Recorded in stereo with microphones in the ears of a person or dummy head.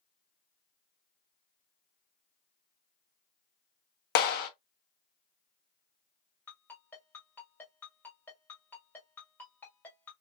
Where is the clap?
60° left (ahead or behind), 0.7 m.